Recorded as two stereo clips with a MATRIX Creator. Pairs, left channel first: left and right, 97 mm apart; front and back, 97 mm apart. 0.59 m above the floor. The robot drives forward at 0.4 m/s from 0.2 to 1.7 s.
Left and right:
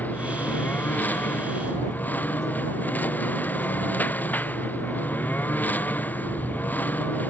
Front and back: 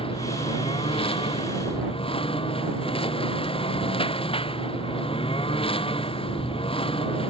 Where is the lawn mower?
15° left.